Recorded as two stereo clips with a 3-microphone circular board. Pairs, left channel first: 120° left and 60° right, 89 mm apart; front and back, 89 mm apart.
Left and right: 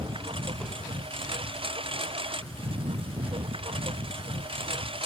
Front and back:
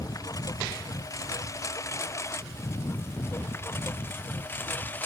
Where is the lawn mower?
50° right; by 5.1 s 70° right.